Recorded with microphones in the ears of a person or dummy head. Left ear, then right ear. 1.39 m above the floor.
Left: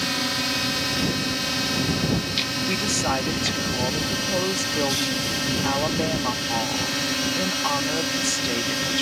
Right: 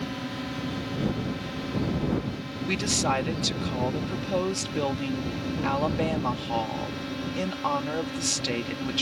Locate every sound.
0.0 s a drone: 70° left (ahead or behind)
2.7 s a woman speaking: 10° right (ahead or behind)